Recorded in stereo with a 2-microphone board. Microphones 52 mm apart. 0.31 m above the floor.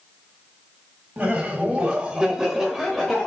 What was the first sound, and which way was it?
Laughter, 25° right (ahead or behind).